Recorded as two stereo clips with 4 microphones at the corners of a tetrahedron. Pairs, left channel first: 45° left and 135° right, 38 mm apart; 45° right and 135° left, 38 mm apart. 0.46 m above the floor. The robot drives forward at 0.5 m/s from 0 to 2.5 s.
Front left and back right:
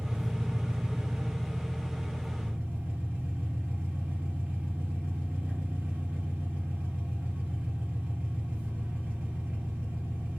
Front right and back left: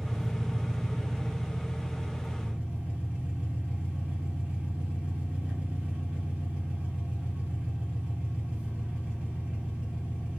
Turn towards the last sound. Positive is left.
turn(degrees=-175)